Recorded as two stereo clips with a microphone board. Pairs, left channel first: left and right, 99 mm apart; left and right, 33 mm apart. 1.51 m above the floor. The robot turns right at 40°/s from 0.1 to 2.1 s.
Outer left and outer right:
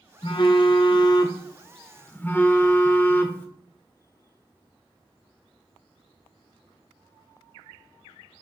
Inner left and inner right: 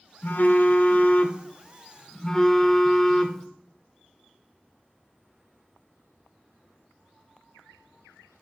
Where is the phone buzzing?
80° left, 0.7 m; by 3.5 s 155° left, 0.7 m.